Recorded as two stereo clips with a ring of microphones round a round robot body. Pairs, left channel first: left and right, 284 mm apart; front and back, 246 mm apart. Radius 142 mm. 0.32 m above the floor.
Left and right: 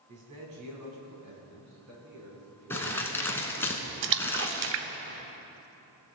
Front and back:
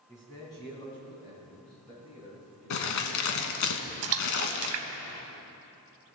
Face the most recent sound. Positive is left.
turn(degrees=-140)